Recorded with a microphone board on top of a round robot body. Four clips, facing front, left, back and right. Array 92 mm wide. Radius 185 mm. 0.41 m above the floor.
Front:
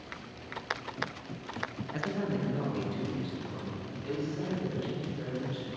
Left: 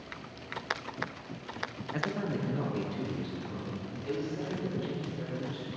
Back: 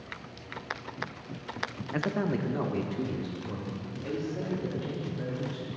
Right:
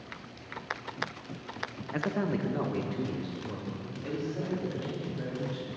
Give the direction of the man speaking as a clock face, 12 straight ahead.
5 o'clock.